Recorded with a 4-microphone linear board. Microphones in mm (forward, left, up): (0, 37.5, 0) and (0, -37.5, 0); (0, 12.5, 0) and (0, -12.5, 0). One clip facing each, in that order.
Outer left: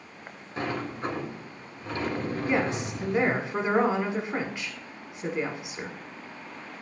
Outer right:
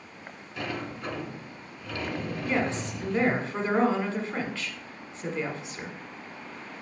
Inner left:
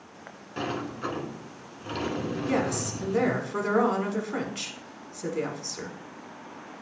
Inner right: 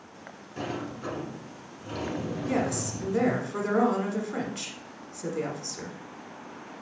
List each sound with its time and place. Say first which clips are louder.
0.6 s a sliding door: outer left 3 dB, inner left 3 dB; 40° left (ahead or behind), 1.2 m
2.5 s a woman speaking: outer left 1 dB, inner left 1 dB; 20° left (ahead or behind), 1.1 m